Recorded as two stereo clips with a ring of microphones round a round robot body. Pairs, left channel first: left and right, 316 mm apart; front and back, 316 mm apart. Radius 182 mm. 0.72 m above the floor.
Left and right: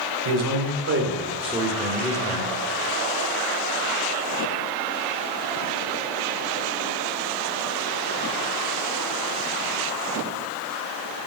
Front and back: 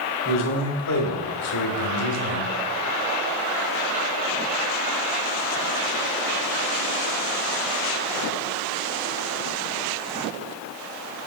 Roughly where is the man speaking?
Ahead right.